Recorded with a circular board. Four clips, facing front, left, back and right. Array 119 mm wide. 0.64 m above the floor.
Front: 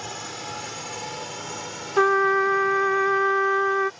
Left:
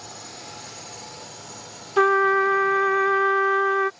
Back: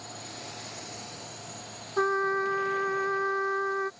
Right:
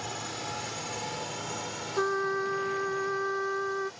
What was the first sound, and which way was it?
A drone, 20° right.